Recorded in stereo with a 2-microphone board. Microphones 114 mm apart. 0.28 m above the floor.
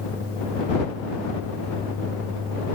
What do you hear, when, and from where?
Only background noise.